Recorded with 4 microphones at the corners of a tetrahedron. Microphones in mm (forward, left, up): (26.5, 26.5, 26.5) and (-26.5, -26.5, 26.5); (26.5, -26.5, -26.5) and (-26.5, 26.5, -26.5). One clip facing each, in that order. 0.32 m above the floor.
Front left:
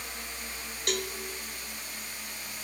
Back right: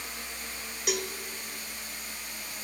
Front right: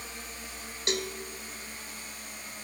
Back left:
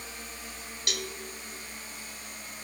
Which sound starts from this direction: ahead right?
A cowbell, at 0.9 s.